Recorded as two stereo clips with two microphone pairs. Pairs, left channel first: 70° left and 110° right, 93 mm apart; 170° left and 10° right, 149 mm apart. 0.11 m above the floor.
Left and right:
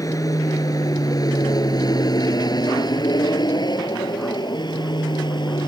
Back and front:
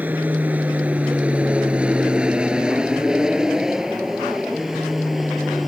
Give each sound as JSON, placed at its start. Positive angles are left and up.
{"t": 0.0, "sound": "an aircraft", "azimuth_deg": 65}